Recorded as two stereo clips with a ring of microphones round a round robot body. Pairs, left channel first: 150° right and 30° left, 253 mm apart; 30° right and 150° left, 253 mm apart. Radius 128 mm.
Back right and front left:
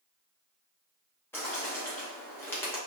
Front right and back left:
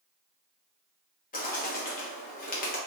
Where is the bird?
75° right, 0.8 m.